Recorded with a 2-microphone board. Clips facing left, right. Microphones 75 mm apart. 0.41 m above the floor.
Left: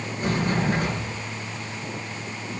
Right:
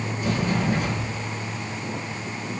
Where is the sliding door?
40° left (ahead or behind), 6 m.